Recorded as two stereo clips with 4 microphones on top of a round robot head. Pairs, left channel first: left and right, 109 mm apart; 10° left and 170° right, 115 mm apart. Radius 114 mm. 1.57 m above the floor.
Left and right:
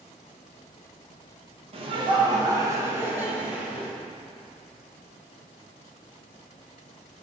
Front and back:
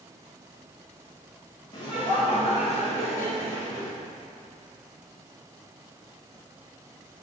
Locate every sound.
1.7 s laughter: 60° right, 1.5 m; by 3.9 s 10° right, 2.5 m